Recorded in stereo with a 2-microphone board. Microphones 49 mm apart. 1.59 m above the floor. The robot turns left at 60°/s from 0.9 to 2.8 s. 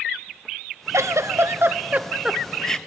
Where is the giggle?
85° right, 0.7 m; by 2.8 s 15° left (ahead or behind), 0.7 m.